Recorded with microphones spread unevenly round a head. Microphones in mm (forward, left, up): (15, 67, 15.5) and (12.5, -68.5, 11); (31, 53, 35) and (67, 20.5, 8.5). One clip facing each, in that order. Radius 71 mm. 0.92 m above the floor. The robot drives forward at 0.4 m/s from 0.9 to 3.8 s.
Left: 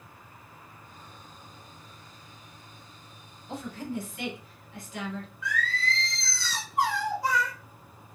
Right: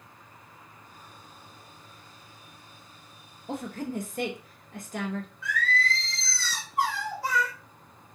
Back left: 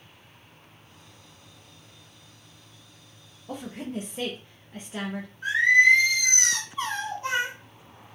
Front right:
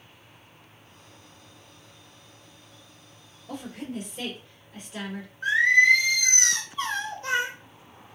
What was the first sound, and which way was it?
A woman speaking, 130° right.